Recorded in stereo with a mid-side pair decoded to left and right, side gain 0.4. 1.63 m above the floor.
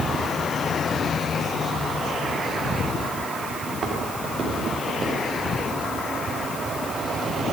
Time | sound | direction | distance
3.7 | footsteps | 45° right | 6.5 m